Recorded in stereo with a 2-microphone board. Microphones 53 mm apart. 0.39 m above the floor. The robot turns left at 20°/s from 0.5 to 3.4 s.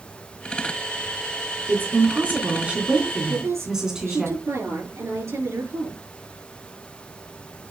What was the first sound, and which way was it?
A woman speaking, 135° right.